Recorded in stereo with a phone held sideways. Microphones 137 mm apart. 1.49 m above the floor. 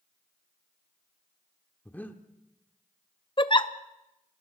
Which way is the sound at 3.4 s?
35° left (ahead or behind).